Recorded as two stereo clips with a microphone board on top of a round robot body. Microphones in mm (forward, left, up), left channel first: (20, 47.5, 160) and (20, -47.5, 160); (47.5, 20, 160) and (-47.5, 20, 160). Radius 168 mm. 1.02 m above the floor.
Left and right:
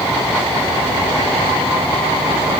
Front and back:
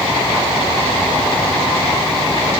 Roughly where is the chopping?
I don't hear chopping.